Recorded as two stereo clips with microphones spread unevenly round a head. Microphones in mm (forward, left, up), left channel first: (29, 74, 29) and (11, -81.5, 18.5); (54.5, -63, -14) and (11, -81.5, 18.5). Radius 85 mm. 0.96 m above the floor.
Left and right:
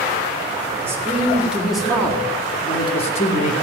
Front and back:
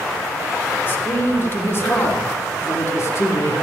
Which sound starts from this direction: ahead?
A man speaking, at 0.8 s.